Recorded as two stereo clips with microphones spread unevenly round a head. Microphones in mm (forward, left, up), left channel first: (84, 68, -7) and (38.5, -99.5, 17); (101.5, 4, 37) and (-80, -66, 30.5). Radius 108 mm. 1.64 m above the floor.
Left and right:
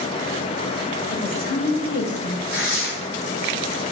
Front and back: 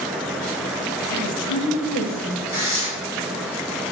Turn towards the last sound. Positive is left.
turn(degrees=85)